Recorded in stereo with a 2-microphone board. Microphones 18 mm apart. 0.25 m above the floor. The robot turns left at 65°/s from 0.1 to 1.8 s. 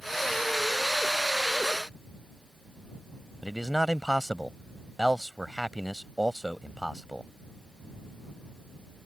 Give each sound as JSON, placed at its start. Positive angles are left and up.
{"t": 3.4, "sound": "a man speaking", "side_deg": -15}